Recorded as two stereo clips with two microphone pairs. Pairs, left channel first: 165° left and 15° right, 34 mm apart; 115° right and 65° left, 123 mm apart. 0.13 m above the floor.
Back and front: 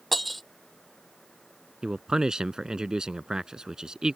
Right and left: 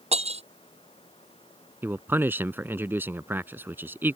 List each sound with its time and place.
0.1 s breaking glass: 80° left
1.8 s a man speaking: 20° left